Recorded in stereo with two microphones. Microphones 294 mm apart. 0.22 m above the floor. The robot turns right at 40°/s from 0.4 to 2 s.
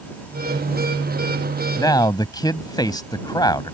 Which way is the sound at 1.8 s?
10° left (ahead or behind).